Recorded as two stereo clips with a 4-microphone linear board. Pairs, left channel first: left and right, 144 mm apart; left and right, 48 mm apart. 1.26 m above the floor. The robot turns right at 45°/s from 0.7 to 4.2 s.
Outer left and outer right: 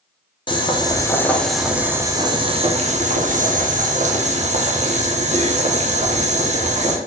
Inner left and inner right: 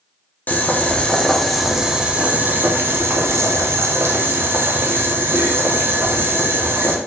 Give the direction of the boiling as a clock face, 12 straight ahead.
7 o'clock.